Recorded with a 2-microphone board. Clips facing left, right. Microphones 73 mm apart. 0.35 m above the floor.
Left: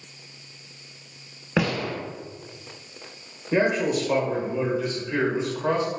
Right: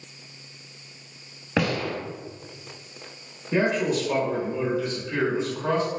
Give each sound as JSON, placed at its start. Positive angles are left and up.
{"t": 1.6, "sound": "a gunshot", "side_deg": 5, "distance_m": 1.1}
{"t": 3.5, "sound": "a man speaking", "side_deg": 25, "distance_m": 1.0}